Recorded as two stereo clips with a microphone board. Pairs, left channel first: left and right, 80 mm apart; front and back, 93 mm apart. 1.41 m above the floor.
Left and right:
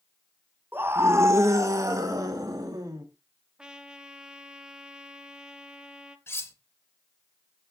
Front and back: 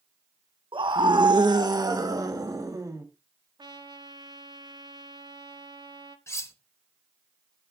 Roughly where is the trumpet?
Behind.